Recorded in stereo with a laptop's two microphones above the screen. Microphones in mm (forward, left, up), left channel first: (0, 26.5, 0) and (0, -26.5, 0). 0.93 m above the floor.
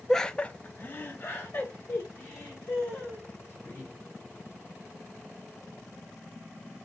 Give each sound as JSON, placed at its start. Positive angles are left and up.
{"t": 0.1, "sound": "laughter", "side_deg": 5, "distance_m": 0.6}